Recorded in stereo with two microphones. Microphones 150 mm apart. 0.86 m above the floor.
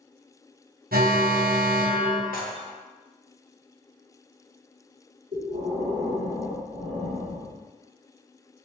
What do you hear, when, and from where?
0.9 s an alarm: 80° right, 0.6 m
2.3 s dishes clattering: 70° left (ahead or behind), 0.7 m
5.3 s breathing: 65° right (ahead or behind), 2.0 m